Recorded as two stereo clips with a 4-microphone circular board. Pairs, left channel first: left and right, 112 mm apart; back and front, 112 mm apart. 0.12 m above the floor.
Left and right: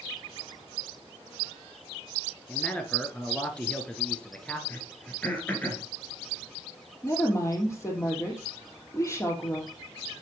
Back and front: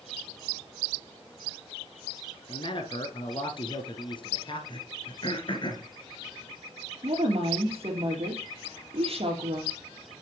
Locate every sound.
2.5 s a man speaking: 165° left, 1.7 m
4.7 s throat clearing: 160° left, 2.0 m
7.0 s a woman speaking: 25° left, 3 m